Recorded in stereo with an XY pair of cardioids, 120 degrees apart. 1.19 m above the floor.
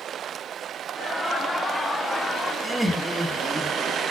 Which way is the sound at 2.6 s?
5° right.